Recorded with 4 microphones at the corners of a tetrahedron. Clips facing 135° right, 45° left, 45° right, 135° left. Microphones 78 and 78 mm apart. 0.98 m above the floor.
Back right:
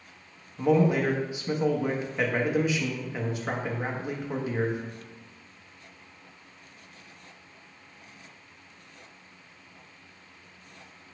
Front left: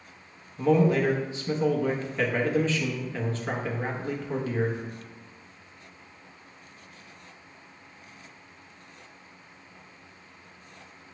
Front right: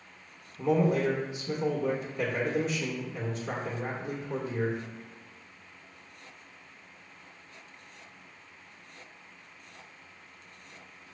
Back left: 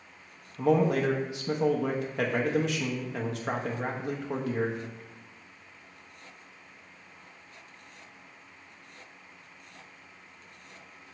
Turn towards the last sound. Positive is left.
turn(degrees=150)